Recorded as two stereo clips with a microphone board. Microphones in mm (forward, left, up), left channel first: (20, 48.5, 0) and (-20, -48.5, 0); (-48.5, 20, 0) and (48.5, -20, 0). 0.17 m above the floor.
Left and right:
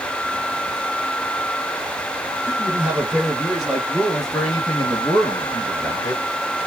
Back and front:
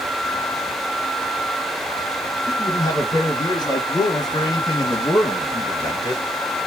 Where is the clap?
No clap in this recording.